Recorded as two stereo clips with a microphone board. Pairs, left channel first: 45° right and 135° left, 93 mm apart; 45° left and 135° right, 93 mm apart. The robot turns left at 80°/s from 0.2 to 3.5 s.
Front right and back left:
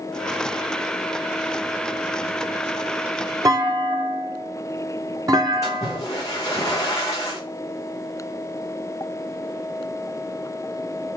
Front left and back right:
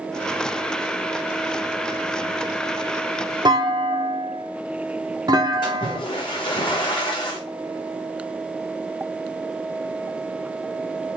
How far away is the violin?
I don't hear a violin.